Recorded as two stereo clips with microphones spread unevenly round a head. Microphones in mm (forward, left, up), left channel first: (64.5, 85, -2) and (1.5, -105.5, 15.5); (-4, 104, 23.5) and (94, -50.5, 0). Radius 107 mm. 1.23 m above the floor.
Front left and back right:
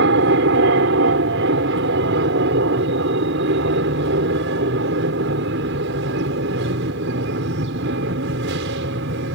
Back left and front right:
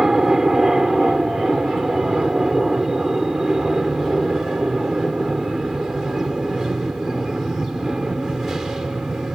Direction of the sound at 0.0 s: 145° right.